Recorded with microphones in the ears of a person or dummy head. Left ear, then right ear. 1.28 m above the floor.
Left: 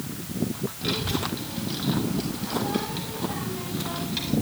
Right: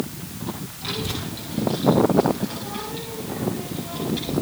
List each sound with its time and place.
0.8 s a child speaking: 5° left (ahead or behind), 6 m; by 4.3 s 20° left (ahead or behind), 6 m